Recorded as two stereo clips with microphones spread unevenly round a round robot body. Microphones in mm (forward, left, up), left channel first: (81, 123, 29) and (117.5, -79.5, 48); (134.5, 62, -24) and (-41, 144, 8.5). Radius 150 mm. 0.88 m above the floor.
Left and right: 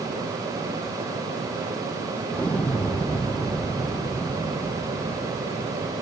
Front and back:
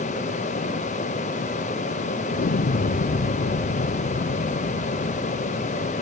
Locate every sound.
2.3 s an explosion: 15° left